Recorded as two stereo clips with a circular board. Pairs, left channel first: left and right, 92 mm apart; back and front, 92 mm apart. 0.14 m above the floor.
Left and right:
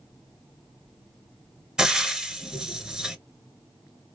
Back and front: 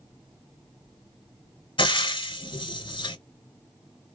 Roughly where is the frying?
Behind.